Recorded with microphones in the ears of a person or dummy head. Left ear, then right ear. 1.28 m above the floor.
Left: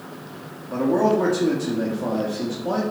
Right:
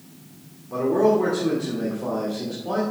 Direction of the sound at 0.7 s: 45° left (ahead or behind).